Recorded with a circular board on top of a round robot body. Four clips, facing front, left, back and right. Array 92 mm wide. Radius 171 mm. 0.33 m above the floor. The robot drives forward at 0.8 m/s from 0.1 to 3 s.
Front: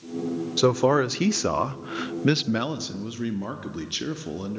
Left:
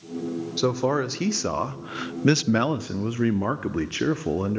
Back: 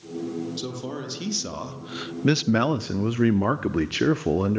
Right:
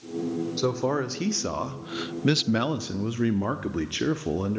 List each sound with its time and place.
0.6 s a man speaking: 10° left, 1.6 m; by 4.6 s 160° left, 1.0 m